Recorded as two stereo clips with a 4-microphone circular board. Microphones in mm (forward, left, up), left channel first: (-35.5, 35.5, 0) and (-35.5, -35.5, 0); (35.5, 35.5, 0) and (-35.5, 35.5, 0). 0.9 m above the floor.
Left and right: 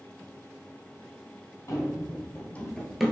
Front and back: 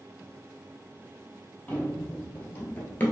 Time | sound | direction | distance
1.7 | running footsteps | 60° left | 1.4 m